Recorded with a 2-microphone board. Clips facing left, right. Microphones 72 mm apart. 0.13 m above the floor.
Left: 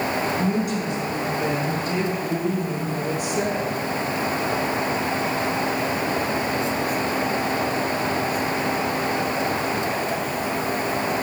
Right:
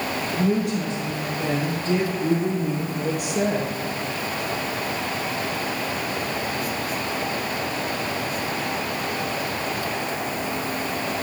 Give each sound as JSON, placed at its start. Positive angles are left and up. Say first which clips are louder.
{"t": 0.3, "sound": "a woman speaking", "louder": "even", "side_deg": -75, "distance_m": 5.0}